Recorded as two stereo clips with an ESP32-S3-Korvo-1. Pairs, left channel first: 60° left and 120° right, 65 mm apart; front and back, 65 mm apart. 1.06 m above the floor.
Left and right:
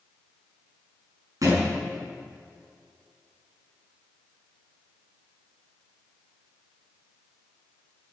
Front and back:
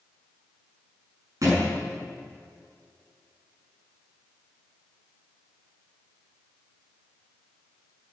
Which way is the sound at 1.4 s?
150° right.